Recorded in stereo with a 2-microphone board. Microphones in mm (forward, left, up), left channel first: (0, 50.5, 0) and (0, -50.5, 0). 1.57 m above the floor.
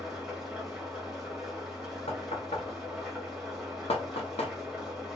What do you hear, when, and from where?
0.0 s an engine running: 5° right (ahead or behind), 1.4 m
2.1 s knocking: 80° left, 0.8 m